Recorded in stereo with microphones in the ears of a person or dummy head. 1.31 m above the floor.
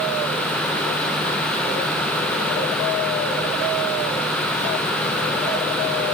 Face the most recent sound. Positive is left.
No sound to turn to.